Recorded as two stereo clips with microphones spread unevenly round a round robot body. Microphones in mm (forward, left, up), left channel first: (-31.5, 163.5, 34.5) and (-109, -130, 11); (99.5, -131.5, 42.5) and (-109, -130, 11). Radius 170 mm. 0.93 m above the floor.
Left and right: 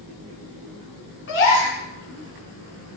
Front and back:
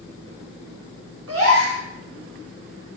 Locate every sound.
1.3 s a gasp: 125° left, 5 m